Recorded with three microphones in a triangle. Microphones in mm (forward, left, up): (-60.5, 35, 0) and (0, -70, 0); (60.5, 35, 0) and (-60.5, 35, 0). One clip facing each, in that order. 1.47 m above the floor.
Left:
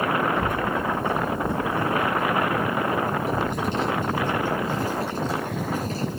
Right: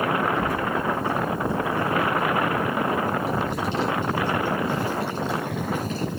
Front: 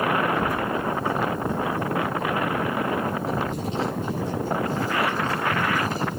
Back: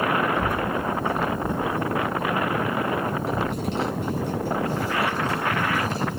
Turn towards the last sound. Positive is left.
turn(degrees=175)